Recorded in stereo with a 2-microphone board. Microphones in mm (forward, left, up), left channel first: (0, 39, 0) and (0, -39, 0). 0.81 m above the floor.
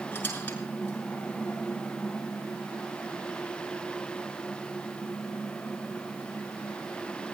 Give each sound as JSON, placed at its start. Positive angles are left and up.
{"t": 0.1, "sound": "a squeak", "side_deg": 25, "distance_m": 6.5}